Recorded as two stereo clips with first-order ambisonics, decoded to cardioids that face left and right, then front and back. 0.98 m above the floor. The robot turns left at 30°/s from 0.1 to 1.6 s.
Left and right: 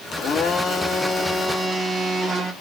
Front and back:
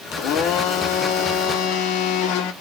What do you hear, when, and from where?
0.1 s a blender: 35° left, 0.8 m; by 2.5 s 10° right, 0.8 m